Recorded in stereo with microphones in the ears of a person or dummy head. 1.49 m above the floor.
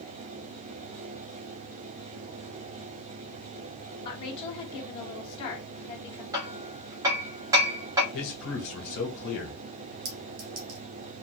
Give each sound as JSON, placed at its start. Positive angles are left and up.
{"t": 4.0, "sound": "a woman speaking", "side_deg": 25, "distance_m": 1.4}
{"t": 6.3, "sound": "hammering", "side_deg": -20, "distance_m": 1.3}
{"t": 8.1, "sound": "a man speaking", "side_deg": 75, "distance_m": 1.2}
{"t": 10.1, "sound": "a clink", "side_deg": -40, "distance_m": 1.0}